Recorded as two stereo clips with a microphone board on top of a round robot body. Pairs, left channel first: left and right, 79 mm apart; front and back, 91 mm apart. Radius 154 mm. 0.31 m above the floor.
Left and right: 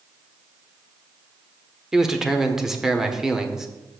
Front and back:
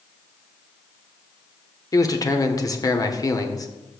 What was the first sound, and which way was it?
A man speaking, 10° right.